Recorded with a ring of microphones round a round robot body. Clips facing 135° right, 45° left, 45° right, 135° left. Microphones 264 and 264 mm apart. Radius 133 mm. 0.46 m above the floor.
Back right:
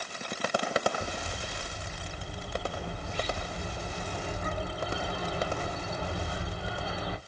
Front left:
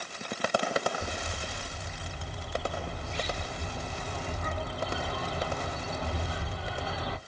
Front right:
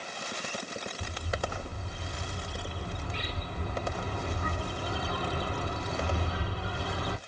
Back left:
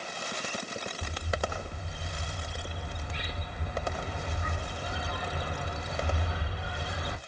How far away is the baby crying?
No baby crying in this recording.